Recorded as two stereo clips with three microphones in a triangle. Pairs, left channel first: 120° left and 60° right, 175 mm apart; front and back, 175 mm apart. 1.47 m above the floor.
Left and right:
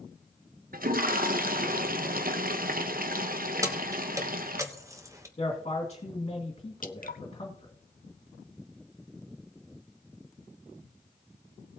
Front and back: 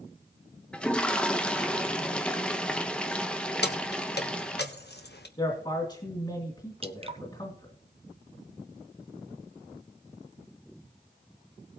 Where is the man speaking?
60° left, 2.5 m.